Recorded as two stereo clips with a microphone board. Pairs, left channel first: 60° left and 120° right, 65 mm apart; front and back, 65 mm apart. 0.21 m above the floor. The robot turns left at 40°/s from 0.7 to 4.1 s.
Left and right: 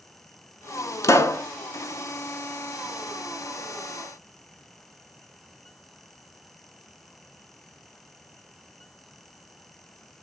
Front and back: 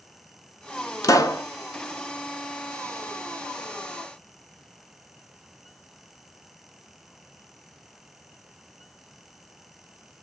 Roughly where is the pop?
Ahead left.